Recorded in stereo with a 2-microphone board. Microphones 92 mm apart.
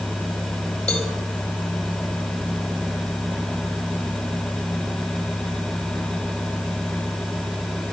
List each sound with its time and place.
0.9 s a cowbell: 10° left (ahead or behind), 4 m